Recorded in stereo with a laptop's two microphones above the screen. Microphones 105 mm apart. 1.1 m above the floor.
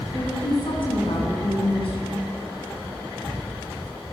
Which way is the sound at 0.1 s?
60° left (ahead or behind).